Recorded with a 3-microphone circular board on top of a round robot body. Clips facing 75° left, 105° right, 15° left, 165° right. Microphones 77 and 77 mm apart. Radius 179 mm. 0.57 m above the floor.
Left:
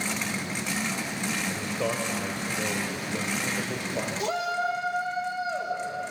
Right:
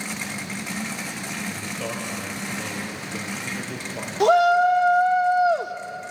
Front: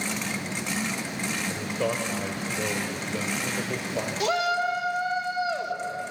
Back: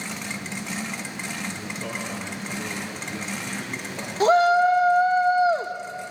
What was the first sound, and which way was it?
A man speaking, straight ahead.